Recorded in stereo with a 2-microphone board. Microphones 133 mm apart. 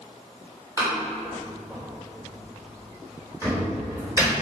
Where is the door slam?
25° right (ahead or behind), 3 m.